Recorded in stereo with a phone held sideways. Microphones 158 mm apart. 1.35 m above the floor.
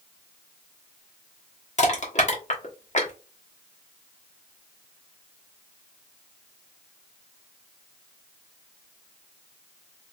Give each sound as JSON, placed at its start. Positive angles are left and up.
{"t": 1.8, "sound": "crushing", "side_deg": 50, "distance_m": 1.2}